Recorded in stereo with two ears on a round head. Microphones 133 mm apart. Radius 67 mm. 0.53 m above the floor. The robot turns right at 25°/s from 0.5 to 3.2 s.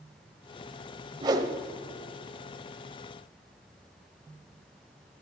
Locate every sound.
1.2 s a whoosh: 30° right (ahead or behind), 0.8 m; by 1.5 s 20° right (ahead or behind), 0.8 m